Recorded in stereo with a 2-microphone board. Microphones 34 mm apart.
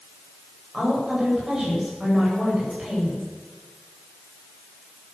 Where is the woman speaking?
20° right (ahead or behind), 8.5 m.